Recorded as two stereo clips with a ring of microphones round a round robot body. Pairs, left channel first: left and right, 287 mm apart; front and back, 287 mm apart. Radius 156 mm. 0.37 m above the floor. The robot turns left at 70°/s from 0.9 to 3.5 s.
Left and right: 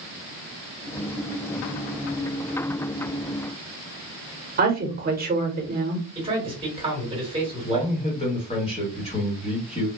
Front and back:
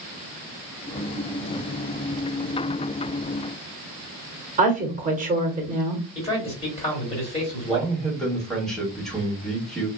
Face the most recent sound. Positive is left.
turn(degrees=85)